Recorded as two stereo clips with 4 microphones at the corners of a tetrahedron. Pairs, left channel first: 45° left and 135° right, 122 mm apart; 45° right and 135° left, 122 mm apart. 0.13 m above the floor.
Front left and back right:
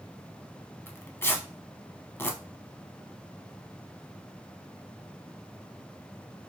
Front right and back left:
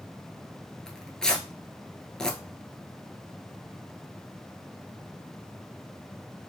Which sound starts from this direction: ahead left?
Tearing paper, at 0.9 s.